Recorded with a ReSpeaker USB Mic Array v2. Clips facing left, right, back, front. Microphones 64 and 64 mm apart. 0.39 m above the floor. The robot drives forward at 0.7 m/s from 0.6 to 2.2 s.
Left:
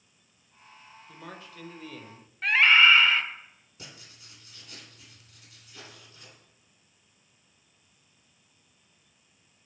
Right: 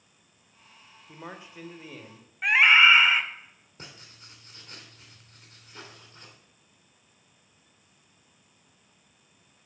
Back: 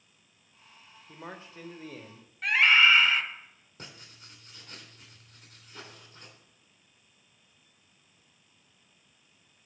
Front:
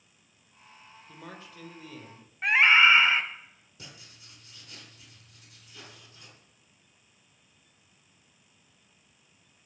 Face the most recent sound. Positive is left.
turn(degrees=-140)